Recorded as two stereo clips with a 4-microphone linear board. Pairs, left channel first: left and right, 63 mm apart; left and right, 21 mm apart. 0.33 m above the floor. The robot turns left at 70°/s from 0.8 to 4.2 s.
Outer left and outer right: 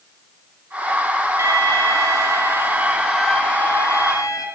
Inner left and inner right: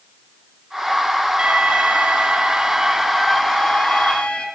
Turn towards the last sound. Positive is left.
turn(degrees=110)